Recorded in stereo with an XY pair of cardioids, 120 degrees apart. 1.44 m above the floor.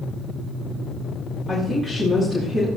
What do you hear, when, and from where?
1.5 s a woman speaking: 10° right, 7 m